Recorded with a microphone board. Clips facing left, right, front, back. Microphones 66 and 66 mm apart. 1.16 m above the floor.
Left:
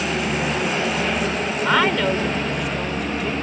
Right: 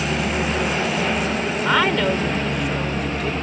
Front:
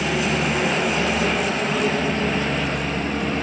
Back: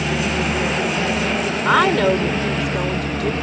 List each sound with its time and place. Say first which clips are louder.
1.6 s a woman speaking: even, back 7 dB; straight behind